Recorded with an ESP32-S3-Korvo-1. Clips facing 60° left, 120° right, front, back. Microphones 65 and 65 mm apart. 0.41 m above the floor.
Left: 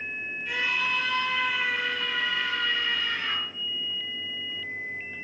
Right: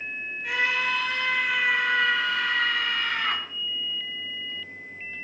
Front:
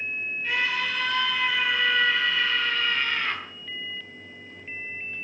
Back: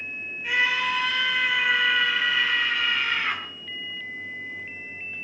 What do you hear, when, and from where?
0.4 s a scream: 100° right, 6.5 m